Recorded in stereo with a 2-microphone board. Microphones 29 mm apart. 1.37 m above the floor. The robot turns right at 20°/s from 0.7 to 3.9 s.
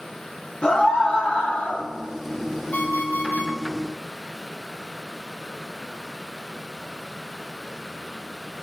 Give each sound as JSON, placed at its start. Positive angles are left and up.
{"t": 0.6, "sound": "a scream", "side_deg": 40, "distance_m": 3.0}
{"t": 2.7, "sound": "an alarm clock", "side_deg": 75, "distance_m": 6.0}